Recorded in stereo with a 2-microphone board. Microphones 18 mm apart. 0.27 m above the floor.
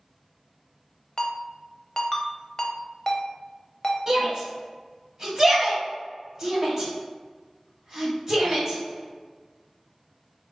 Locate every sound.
1.2 s a ringtone: 25° left (ahead or behind), 0.6 m
4.1 s a shout: 30° right (ahead or behind), 1.6 m